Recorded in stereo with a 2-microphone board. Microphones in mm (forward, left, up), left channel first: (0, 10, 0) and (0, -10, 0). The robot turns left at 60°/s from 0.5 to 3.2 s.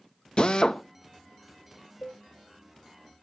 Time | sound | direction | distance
0.4 | a drill | 50° left (ahead or behind) | 1.3 m
2.0 | a cowbell | 80° left | 2.5 m